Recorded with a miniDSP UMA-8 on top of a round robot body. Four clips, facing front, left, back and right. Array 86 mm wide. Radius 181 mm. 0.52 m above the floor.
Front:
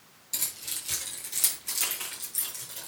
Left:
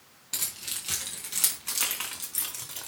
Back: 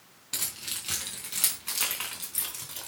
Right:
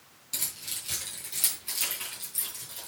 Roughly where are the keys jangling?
Behind left.